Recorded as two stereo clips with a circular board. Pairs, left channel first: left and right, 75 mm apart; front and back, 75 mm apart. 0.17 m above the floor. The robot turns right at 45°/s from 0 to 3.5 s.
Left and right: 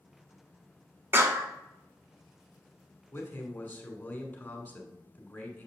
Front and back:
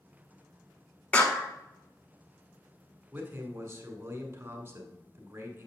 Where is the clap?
60° right, 0.9 m; by 1.5 s 45° right, 0.9 m.